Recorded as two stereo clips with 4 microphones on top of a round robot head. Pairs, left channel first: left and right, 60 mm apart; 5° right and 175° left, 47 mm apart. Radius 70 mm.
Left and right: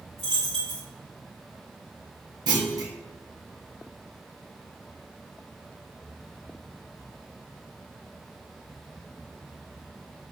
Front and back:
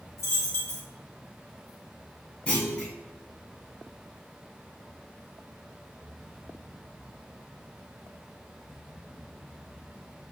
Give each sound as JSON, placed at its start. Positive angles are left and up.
{"t": 0.2, "sound": "a dropped coin", "azimuth_deg": 15, "distance_m": 1.2}
{"t": 2.5, "sound": "a clunk", "azimuth_deg": -80, "distance_m": 1.0}